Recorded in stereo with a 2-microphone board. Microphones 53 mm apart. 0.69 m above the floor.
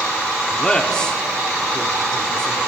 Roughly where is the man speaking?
Centre.